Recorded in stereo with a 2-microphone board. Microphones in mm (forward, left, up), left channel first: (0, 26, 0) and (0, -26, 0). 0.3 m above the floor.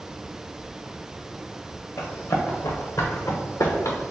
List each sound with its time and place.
2.0 s running footsteps: 70° left (ahead or behind), 1.9 m; by 4.1 s 65° left (ahead or behind), 1.4 m